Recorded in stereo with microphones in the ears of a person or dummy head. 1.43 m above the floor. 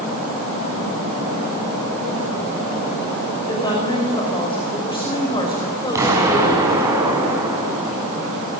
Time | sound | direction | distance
3.5 | a woman speaking | 20° left (ahead or behind) | 6 m
6.0 | an explosion | 20° right (ahead or behind) | 5.5 m